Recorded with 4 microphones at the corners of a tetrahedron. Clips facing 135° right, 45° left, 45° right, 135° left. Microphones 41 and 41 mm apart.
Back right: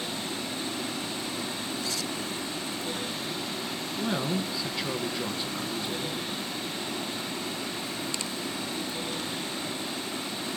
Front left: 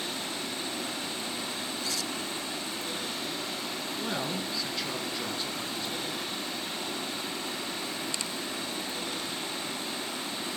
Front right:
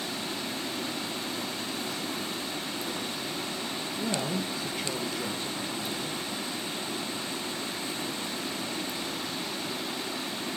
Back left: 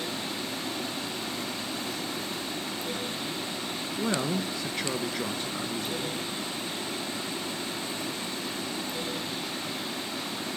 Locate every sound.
4.0 s a woman speaking: 145° left, 2.5 m